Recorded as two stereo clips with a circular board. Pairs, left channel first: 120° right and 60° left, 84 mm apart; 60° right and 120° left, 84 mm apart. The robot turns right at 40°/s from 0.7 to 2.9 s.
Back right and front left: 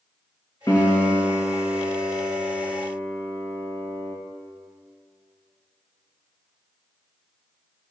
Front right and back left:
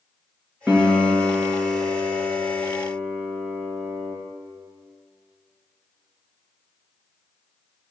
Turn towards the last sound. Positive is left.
turn(degrees=-75)